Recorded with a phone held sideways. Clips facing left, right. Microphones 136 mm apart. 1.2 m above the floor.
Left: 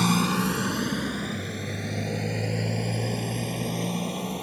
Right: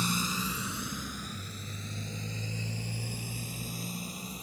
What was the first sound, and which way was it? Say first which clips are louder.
A motorcycle: left 10 dB; 75° left (ahead or behind).